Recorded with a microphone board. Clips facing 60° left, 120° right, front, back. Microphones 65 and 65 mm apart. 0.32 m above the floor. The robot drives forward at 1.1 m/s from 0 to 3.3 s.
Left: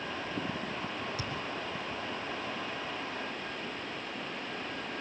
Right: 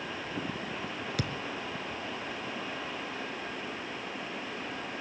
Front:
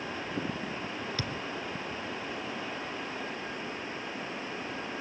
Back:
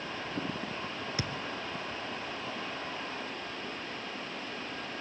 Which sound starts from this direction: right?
A thud, at 1.2 s.